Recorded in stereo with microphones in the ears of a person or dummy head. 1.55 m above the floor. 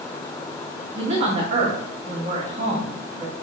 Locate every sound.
0.9 s a woman speaking: 40° right (ahead or behind), 2.0 m